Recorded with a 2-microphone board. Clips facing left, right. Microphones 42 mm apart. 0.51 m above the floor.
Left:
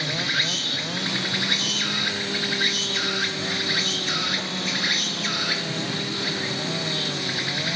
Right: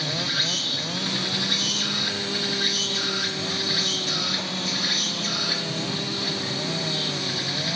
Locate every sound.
0.0 s an insect: 40° left (ahead or behind), 1.3 m